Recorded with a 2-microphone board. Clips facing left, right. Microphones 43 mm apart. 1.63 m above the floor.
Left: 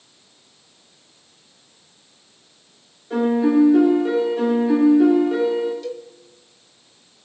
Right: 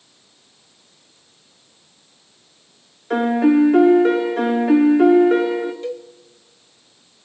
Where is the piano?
70° right (ahead or behind), 2.5 m.